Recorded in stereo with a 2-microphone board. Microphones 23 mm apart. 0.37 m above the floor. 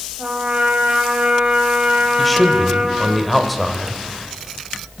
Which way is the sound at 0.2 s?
55° right (ahead or behind).